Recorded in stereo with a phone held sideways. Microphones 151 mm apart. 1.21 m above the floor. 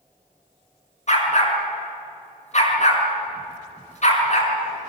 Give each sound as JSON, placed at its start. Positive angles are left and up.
{"t": 1.1, "sound": "a dog barking", "side_deg": 55, "distance_m": 5.0}